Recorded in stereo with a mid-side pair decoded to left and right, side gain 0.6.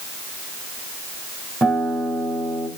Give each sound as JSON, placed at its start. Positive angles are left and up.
{"t": 1.6, "sound": "a guitar", "azimuth_deg": -20, "distance_m": 4.5}